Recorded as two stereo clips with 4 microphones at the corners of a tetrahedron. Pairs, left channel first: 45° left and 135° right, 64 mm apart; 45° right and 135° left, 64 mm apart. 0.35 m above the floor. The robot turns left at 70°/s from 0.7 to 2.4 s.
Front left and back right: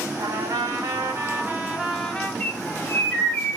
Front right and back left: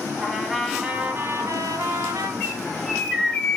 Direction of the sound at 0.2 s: 140° right.